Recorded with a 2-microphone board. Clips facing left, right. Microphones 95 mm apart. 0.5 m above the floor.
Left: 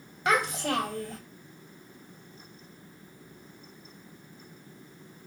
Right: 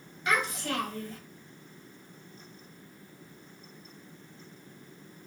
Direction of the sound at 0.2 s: 65° left (ahead or behind).